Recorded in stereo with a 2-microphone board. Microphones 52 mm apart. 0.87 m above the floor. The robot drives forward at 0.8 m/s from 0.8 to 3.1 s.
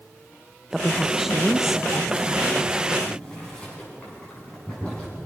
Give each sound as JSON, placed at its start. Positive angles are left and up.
{"t": 0.7, "sound": "a woman speaking", "side_deg": -5, "distance_m": 0.6}
{"t": 3.0, "sound": "boiling", "side_deg": 20, "distance_m": 9.0}